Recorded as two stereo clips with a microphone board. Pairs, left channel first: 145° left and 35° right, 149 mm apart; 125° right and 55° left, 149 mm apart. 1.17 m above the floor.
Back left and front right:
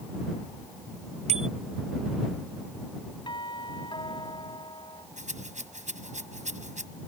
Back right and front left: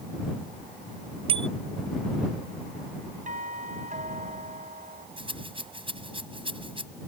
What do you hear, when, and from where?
1.3 s a bicycle bell: 5° left
3.3 s a doorbell: 90° left
5.2 s a rattle: straight ahead